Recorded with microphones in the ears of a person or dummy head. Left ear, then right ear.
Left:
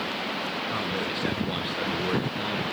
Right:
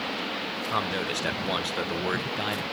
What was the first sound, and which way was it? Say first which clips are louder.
A man speaking: right 1 dB; 35° right (ahead or behind).